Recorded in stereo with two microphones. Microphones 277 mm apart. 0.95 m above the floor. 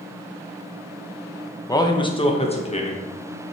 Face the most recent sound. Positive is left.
turn(degrees=25)  # may be behind; listen again after turning